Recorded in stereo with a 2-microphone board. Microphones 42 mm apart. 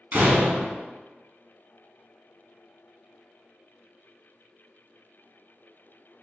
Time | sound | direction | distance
0.1 | a door slam | 45° right (ahead or behind) | 0.9 m